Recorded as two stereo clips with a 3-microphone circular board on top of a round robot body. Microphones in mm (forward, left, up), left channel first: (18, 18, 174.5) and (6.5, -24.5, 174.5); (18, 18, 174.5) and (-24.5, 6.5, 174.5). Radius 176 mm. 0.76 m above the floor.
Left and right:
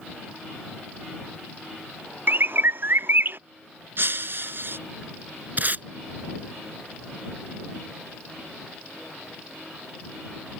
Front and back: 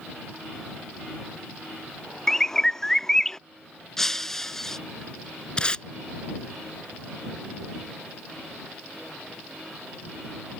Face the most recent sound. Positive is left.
turn(degrees=-55)